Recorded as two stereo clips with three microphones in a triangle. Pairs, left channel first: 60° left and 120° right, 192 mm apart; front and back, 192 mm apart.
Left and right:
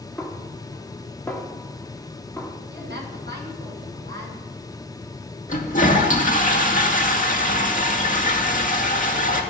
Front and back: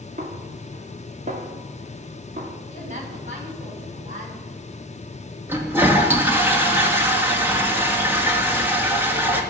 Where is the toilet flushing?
100° left, 2 m.